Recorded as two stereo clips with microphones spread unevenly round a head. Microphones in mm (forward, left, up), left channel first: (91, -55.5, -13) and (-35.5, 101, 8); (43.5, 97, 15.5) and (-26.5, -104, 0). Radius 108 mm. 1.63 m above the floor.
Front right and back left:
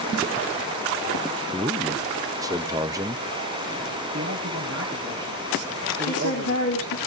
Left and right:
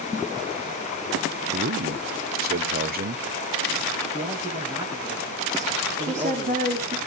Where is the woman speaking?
50° right, 3.5 m.